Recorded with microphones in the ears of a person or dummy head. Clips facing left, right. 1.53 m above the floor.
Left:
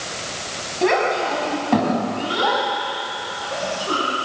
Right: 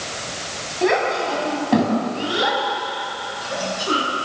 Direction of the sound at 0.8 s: 5° left (ahead or behind).